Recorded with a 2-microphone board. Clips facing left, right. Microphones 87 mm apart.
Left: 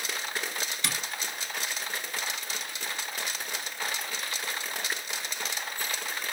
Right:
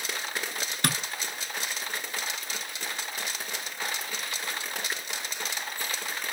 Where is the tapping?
55° right (ahead or behind), 0.8 m.